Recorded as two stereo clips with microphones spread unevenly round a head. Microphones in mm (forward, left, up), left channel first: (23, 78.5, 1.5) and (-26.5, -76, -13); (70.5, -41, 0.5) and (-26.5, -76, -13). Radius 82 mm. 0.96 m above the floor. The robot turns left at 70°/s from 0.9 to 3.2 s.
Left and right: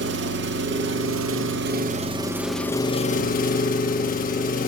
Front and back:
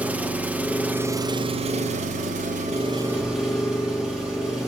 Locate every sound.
0.0 s an engine running: 85° right, 1.0 m; by 4.7 s 115° left, 1.0 m